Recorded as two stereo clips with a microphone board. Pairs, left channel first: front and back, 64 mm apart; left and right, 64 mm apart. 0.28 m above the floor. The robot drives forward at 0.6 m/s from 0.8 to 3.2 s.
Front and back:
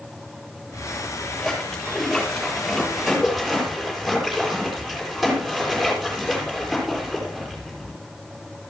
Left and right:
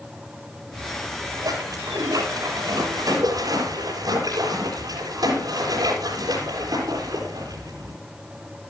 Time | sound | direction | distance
0.7 | a splash | 85° right | 7 m